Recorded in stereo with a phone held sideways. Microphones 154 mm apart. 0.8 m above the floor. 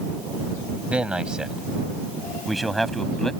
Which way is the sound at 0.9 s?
10° right (ahead or behind).